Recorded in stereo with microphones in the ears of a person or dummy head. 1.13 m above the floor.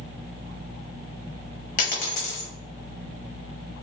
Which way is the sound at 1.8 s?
55° left (ahead or behind).